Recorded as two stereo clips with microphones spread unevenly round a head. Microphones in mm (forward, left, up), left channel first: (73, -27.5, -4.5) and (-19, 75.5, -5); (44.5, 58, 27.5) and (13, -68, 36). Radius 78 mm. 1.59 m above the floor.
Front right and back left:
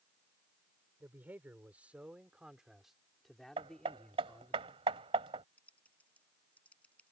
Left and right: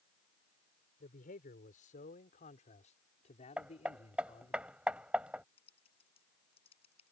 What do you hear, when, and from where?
1.0 s a man speaking: 55° left; by 4.6 s 30° left
3.6 s hammering: straight behind
5.6 s typing on a keyboard: 30° left